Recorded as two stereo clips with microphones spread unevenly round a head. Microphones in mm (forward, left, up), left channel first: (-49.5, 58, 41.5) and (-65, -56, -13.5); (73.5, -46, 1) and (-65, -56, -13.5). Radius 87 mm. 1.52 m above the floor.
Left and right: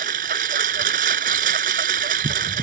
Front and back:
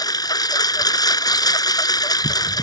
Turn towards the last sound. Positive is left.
turn(degrees=-55)